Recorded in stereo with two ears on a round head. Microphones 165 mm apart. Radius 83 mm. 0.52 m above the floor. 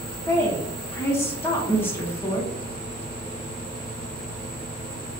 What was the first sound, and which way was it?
A woman speaking, 15° left (ahead or behind).